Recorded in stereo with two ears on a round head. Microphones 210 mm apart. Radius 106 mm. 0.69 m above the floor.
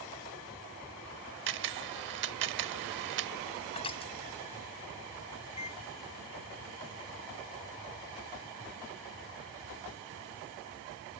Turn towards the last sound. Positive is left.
turn(degrees=25)  # may be behind; listen again after turning